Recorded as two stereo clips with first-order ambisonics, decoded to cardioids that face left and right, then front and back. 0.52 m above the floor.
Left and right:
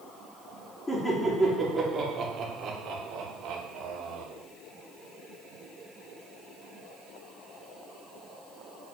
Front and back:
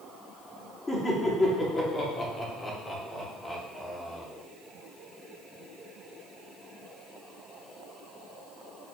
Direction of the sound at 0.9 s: 50° left.